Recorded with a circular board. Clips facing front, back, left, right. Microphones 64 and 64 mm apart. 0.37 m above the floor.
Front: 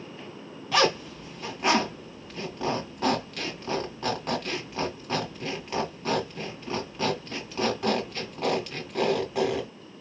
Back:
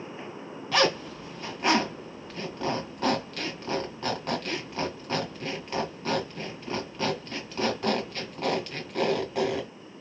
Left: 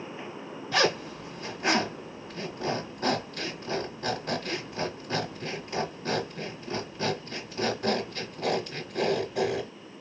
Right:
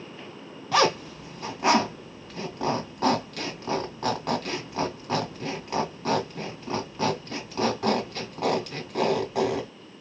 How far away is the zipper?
About 2 m.